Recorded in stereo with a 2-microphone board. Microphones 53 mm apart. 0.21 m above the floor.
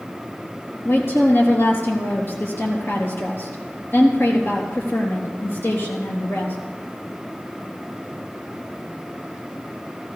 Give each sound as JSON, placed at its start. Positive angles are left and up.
{"t": 0.8, "sound": "a woman speaking", "side_deg": 50, "distance_m": 3.5}